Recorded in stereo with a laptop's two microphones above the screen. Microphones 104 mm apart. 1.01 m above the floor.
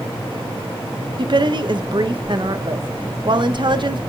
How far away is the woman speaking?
About 1.0 m.